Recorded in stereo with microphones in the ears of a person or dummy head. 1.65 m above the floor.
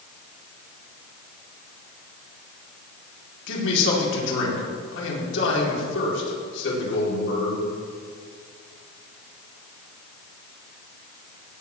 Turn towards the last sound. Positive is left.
turn(degrees=75)  # may be behind; listen again after turning